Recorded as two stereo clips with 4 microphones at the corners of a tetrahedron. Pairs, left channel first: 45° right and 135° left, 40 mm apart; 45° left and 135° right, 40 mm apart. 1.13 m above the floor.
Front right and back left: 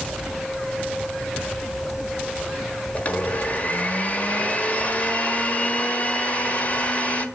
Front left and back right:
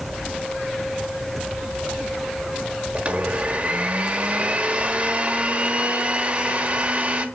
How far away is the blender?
About 1.2 m.